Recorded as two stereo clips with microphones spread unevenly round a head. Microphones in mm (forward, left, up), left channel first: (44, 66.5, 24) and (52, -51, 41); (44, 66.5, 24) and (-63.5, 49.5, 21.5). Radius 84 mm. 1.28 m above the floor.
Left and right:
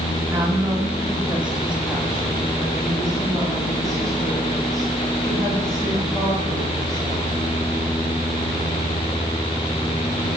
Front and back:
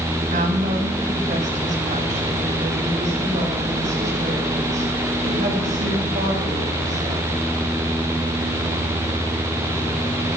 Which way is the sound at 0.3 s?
165° right.